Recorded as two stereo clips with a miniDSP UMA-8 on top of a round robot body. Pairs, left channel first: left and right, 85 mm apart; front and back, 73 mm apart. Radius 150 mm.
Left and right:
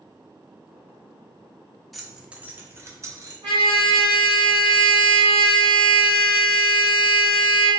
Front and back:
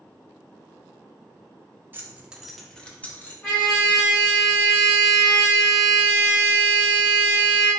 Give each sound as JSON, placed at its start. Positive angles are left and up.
{"t": 1.9, "sound": "keys jangling", "azimuth_deg": 180, "distance_m": 0.7}
{"t": 3.4, "sound": "a trumpet", "azimuth_deg": -75, "distance_m": 1.1}